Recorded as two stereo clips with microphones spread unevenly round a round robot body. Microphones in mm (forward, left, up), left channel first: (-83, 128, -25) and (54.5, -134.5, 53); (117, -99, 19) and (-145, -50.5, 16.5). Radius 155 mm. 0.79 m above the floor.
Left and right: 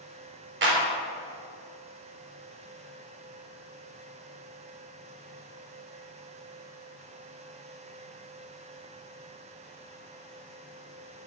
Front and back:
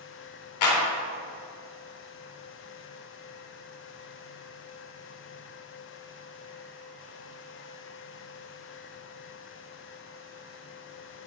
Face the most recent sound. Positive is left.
turn(degrees=-5)